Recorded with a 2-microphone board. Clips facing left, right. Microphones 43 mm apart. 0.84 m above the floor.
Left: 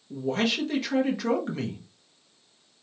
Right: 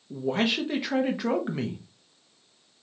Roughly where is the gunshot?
I don't hear a gunshot.